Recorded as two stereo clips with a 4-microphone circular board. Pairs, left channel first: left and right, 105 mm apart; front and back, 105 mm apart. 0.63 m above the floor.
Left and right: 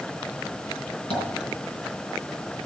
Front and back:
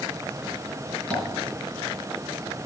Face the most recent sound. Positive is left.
turn(degrees=80)